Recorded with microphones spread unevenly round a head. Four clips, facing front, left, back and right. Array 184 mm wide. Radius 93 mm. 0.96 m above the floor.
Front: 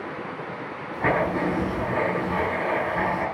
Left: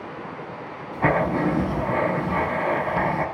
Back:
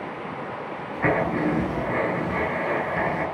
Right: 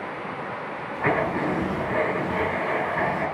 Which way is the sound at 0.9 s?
105° left.